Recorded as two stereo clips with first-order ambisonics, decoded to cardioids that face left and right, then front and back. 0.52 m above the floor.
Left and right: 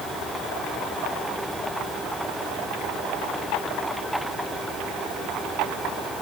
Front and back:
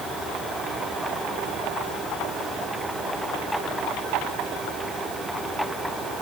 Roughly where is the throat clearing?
I don't hear throat clearing.